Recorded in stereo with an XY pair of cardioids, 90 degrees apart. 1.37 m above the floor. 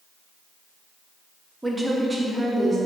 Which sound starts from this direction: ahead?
A woman speaking, at 1.6 s.